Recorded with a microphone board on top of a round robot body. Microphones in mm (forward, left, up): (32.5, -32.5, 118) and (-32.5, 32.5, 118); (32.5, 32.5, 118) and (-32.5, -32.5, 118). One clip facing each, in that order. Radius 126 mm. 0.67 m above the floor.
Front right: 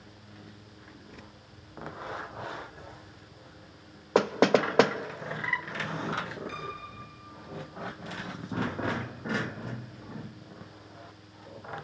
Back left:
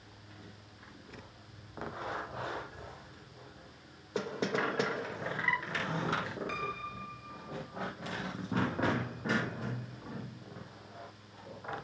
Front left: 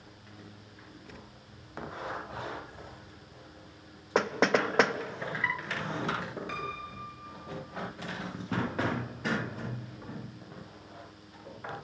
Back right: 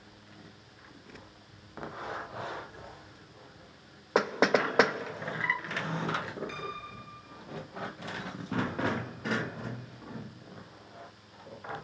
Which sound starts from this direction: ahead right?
Knocking, at 4.2 s.